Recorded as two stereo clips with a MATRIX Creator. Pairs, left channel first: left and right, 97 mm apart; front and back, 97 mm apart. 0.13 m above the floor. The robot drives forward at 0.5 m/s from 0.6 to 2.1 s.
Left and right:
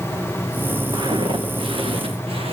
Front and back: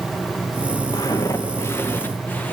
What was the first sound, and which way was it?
Footsteps, 50° right.